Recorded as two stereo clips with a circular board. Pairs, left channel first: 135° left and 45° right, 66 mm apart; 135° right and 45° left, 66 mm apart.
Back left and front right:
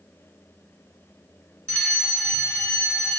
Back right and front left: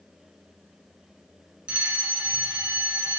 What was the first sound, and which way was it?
A fire alarm, 85° left.